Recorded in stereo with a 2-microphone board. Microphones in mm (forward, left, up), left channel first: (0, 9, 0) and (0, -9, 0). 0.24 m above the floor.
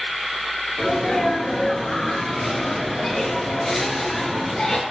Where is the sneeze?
25° left (ahead or behind), 3.5 m.